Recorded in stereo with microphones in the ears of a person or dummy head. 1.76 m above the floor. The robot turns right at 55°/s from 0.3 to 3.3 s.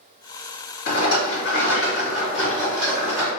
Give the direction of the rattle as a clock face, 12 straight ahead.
10 o'clock.